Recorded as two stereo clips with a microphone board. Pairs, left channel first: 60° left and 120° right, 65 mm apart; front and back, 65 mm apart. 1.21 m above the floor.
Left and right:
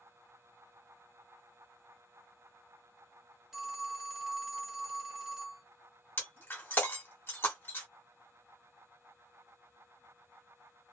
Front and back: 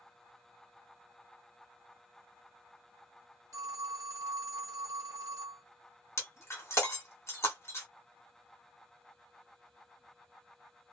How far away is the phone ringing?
About 0.9 m.